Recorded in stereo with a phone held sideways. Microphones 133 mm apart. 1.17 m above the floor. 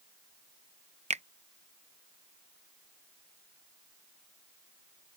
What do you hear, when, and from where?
1.1 s a finger snap: 65° right (ahead or behind)